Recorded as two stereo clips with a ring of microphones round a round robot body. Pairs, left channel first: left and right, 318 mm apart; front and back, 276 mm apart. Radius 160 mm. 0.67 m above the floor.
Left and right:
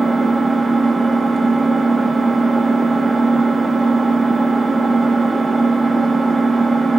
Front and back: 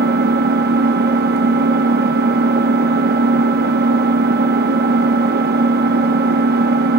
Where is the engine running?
Straight behind, 0.8 m.